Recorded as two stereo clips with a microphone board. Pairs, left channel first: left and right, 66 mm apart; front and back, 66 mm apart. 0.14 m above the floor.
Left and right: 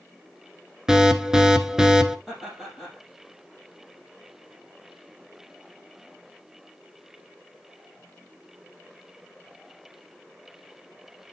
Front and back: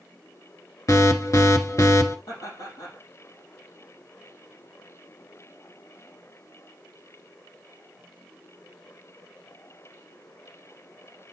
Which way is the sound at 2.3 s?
5° right.